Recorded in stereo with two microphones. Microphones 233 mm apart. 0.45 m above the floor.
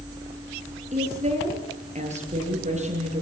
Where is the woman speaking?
30° right (ahead or behind), 9.5 m.